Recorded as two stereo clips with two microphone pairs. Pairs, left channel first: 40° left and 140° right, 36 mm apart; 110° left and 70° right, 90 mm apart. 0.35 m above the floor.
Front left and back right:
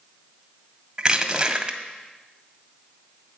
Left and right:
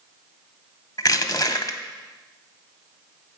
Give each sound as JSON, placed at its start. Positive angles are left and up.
{"t": 1.0, "sound": "crushing", "azimuth_deg": 150, "distance_m": 0.6}